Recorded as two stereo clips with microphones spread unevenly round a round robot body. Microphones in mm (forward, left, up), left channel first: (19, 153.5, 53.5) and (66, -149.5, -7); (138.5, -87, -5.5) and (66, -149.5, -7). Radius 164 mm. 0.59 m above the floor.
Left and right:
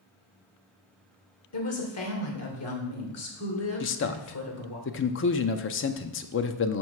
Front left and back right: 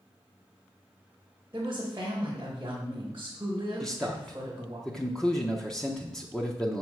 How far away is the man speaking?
About 0.7 m.